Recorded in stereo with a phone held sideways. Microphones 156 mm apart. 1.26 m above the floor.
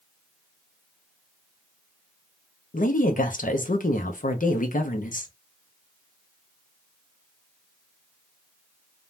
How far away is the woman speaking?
About 0.6 m.